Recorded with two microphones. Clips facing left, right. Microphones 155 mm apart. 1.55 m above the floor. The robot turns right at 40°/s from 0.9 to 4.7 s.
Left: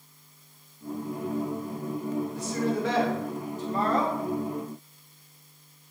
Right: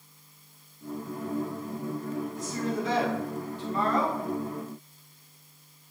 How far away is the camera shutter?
I don't hear a camera shutter.